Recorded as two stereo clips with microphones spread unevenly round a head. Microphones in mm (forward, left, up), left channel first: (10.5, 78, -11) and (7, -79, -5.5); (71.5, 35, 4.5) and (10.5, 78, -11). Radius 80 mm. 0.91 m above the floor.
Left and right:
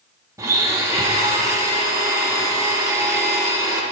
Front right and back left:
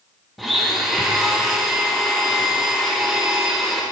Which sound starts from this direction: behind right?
A blender, at 0.4 s.